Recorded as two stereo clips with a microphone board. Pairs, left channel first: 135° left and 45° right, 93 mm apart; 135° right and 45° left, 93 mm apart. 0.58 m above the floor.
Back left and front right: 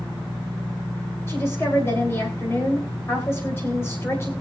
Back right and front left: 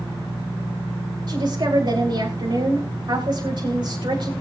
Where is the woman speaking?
75° left, 2.5 m.